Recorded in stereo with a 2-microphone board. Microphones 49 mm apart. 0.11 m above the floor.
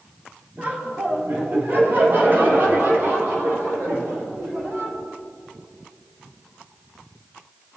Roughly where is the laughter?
Right.